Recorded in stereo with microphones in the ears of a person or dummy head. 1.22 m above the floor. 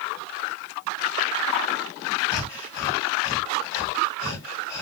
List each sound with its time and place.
2.3 s breathing: 30° left (ahead or behind), 1.7 m